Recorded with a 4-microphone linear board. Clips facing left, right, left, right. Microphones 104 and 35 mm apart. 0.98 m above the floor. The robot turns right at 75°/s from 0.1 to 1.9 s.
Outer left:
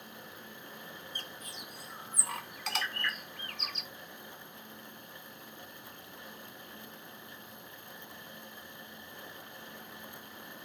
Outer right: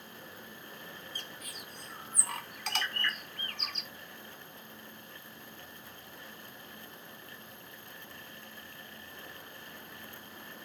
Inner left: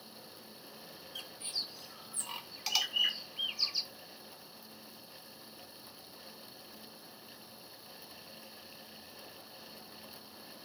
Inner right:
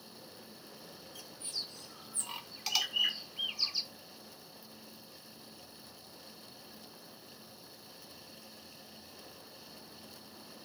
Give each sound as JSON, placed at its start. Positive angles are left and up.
{"t": 1.1, "sound": "a bird", "side_deg": 55}